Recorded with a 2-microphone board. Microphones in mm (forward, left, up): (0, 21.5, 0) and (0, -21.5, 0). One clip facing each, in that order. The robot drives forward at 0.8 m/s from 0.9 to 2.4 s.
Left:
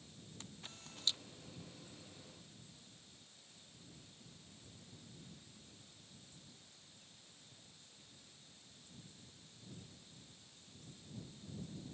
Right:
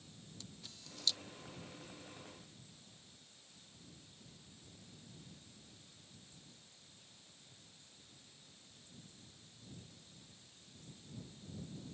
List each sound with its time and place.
0.4 s a camera shutter: 40° left (ahead or behind); by 1.2 s 30° left (ahead or behind)